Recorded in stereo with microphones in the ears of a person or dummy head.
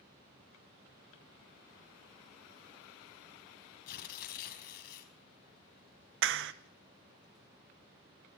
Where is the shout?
No shout in this recording.